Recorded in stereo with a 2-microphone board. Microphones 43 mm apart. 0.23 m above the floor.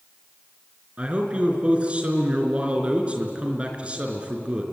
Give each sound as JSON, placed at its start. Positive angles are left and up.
{"t": 1.0, "sound": "a man speaking", "side_deg": -30, "distance_m": 4.0}